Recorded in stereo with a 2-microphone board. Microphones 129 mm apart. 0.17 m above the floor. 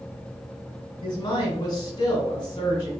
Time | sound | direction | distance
1.0 | a woman speaking | 35° left (ahead or behind) | 1.5 m